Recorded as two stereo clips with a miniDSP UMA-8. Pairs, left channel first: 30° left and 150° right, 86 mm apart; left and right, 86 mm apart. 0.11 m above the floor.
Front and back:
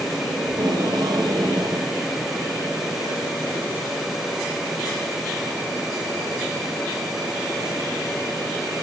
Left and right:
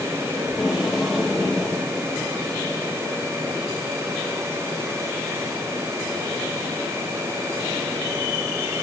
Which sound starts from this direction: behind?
Tape being pulled, at 0.5 s.